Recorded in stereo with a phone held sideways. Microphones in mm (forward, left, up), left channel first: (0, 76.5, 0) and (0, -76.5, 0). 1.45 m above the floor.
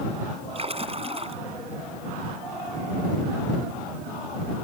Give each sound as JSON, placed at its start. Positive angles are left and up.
{"t": 0.6, "sound": "a splash", "side_deg": -40}